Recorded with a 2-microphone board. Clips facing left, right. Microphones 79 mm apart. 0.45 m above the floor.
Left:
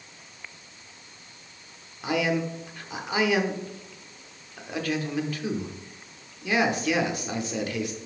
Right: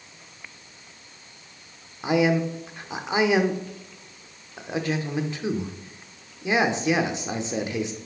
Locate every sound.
2.0 s a man speaking: 25° right (ahead or behind), 0.8 m